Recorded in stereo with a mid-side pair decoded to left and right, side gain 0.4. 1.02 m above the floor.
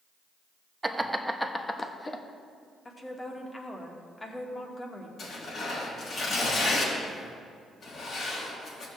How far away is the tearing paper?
About 4 m.